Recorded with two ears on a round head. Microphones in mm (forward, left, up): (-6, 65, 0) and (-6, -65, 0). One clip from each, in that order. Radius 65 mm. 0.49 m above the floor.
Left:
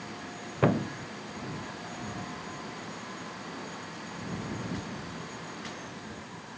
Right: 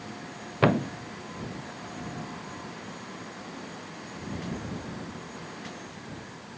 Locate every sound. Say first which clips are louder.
0.6 s a thud: right 3 dB; 85° right